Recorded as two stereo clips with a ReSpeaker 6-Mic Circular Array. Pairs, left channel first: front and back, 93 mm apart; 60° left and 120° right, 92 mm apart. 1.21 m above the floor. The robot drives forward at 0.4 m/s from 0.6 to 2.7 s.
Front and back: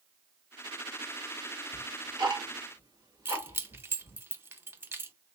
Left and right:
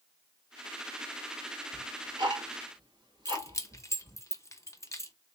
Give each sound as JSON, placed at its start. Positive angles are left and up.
{"t": 1.7, "sound": "ticking", "azimuth_deg": -145, "distance_m": 1.5}
{"t": 3.2, "sound": "keys jangling", "azimuth_deg": 115, "distance_m": 0.7}